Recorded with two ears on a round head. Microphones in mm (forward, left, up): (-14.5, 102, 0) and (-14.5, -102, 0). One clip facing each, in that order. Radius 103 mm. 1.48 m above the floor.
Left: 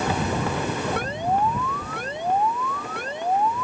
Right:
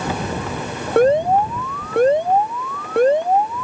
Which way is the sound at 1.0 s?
45° right (ahead or behind).